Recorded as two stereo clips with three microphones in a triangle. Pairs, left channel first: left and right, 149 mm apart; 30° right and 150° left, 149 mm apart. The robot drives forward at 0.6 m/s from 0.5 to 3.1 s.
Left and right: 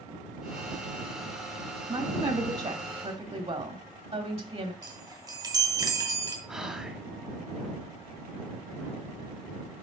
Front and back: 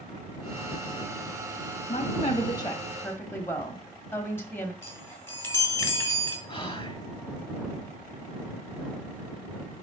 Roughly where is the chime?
Right.